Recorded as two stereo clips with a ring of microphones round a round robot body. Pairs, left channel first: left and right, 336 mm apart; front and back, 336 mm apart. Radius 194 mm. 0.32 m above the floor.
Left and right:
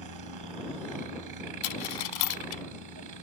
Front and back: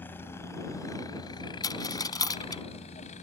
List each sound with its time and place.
0.0 s a helicopter: 85° right; by 3.2 s 70° right
1.6 s a dropped coin: 80° left